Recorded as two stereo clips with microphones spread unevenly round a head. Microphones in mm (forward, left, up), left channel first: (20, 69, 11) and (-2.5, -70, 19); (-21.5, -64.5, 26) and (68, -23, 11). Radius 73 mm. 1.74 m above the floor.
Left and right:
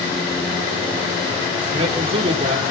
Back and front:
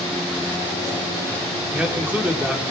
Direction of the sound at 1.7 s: 50° right.